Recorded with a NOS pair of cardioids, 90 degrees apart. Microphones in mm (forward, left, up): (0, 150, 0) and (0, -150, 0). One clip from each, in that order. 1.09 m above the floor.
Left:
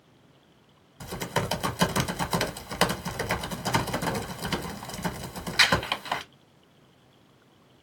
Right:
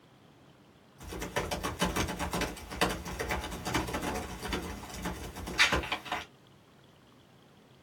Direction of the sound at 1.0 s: 60° left.